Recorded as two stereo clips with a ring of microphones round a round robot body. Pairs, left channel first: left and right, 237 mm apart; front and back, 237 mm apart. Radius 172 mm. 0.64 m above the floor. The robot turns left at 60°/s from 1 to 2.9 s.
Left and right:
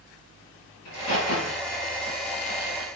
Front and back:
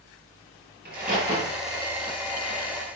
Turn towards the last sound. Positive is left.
turn(degrees=20)